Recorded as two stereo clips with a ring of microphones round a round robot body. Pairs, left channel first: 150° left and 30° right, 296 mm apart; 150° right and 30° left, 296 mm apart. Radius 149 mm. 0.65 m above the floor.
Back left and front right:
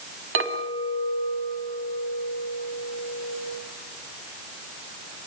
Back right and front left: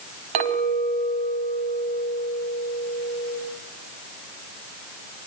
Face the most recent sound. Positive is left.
turn(degrees=25)